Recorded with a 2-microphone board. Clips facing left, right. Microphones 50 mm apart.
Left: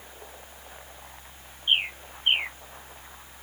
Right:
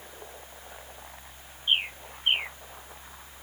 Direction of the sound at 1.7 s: 15° left (ahead or behind).